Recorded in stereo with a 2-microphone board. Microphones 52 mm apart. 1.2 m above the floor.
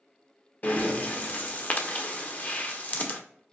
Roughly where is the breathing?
Left.